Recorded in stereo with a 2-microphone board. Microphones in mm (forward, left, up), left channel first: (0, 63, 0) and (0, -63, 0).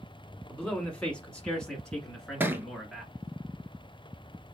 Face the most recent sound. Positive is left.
turn(degrees=-15)  # may be behind; listen again after turning